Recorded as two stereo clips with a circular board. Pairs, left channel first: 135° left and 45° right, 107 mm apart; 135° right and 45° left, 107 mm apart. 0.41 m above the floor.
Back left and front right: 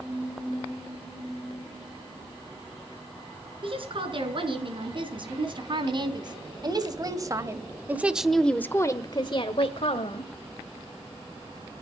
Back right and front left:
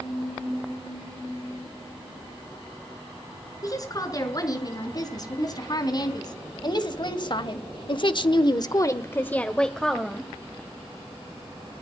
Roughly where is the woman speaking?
Right.